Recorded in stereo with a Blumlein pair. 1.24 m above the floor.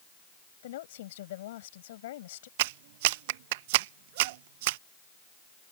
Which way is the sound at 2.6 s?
50° right.